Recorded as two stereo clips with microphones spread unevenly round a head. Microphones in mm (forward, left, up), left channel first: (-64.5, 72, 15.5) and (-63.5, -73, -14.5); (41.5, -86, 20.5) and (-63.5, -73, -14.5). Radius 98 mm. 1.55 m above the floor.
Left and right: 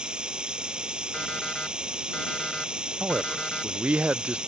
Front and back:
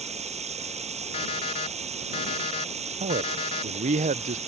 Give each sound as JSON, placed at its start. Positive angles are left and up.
{"t": 0.0, "sound": "running water", "azimuth_deg": -175}
{"t": 1.1, "sound": "an alarm clock", "azimuth_deg": 10}
{"t": 3.0, "sound": "a man speaking", "azimuth_deg": -175}